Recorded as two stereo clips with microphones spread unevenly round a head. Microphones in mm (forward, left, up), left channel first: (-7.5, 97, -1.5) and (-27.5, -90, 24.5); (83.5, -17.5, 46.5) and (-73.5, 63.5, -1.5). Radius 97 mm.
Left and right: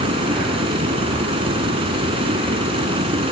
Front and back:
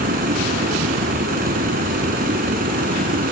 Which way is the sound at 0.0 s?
160° right.